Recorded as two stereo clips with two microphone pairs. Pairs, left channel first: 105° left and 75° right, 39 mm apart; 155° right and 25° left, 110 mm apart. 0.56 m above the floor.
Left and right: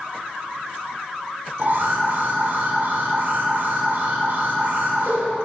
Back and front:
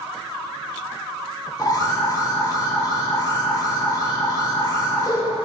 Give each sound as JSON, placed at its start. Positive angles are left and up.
{"t": 1.6, "sound": "an alarm", "azimuth_deg": -105, "distance_m": 1.3}